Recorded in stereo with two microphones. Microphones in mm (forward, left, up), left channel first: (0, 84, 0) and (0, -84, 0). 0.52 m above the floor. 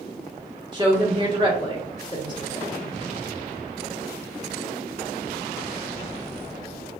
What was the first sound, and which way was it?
A woman speaking, 25° right (ahead or behind).